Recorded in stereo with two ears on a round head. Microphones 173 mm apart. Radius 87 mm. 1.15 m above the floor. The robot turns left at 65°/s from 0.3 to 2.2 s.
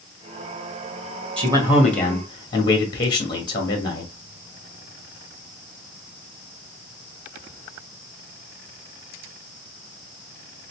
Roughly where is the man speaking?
Behind right.